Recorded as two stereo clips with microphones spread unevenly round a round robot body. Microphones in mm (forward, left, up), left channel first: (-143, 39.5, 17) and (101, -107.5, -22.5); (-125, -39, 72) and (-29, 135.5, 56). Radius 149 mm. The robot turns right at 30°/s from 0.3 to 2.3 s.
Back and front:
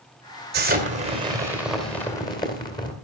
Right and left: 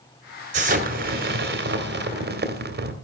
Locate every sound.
0.5 s an explosion: 15° left, 2 m; by 2.9 s 70° left, 2 m